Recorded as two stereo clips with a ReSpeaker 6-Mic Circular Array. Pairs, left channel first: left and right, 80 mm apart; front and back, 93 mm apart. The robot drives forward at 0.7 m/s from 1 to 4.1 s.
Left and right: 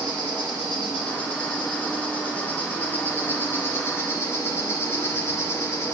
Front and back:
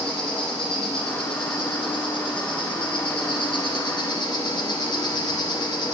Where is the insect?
15° left, 3.5 m; by 6.0 s 35° left, 1.7 m.